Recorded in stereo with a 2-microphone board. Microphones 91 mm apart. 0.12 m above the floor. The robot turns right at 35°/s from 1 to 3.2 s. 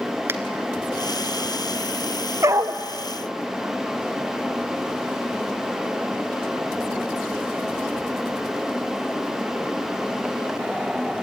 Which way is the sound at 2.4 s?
30° right (ahead or behind).